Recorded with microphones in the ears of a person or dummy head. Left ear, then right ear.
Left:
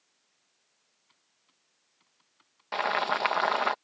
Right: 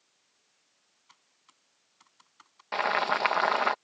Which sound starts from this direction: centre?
Boiling, at 2.7 s.